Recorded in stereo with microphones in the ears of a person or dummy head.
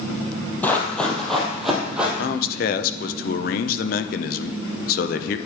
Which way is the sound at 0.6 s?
10° left (ahead or behind).